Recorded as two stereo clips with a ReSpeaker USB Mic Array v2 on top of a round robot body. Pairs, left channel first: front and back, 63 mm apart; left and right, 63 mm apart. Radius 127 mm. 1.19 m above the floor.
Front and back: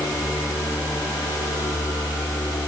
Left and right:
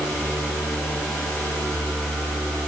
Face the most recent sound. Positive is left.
No sound to turn to.